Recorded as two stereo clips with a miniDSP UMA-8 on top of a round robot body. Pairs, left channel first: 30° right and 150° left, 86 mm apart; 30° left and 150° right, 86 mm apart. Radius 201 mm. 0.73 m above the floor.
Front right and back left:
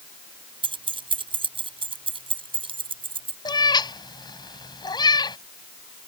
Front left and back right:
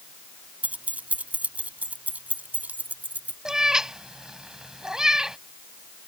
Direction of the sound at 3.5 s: 70° right.